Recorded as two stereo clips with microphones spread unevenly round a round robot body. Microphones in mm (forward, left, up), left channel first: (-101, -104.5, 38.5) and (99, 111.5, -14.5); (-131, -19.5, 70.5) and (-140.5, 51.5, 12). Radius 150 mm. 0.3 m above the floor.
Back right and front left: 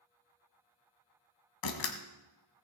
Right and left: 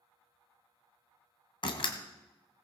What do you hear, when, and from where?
1.6 s a door slam: 115° right, 1.7 m